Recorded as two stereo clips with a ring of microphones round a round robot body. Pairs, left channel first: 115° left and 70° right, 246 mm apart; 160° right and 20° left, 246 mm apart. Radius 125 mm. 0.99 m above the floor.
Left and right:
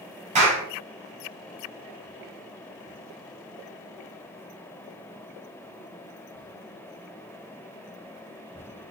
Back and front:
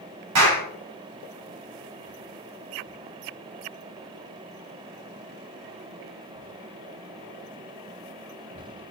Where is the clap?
5° right, 6 m.